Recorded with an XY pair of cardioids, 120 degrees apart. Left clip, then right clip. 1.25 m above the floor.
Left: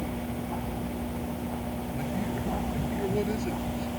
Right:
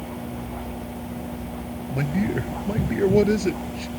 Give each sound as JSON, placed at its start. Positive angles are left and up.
{"t": 1.9, "sound": "a man speaking", "azimuth_deg": -60}